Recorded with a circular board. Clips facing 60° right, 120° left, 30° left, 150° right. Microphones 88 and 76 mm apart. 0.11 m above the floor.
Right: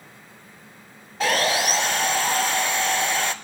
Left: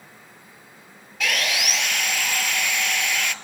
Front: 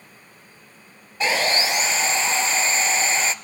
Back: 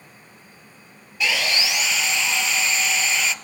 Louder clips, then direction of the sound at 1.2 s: Right 5 dB, front 3 dB; 15° right.